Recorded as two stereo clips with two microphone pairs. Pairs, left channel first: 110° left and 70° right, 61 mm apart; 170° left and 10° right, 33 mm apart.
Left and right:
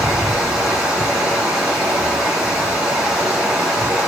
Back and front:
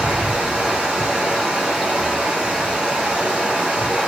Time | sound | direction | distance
0.0 | running water | 10° right | 1.6 m